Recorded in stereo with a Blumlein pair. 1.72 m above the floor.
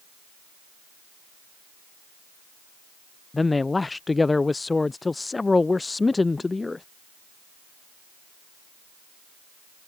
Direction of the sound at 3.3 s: 10° left.